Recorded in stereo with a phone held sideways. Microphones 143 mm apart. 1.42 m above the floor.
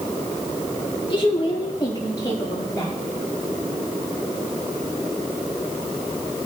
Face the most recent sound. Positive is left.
turn(degrees=20)  # may be behind; listen again after turning